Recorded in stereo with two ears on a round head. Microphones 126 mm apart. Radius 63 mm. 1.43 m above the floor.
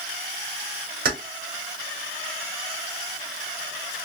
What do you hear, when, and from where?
1.1 s keys jangling: 70° right (ahead or behind), 2.0 m